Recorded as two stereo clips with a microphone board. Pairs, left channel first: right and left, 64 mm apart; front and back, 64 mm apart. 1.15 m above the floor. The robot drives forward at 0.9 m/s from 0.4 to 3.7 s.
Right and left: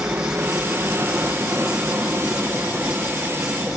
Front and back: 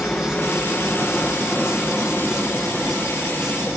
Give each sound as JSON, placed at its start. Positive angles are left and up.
{"t": 0.0, "sound": "a helicopter", "azimuth_deg": 55}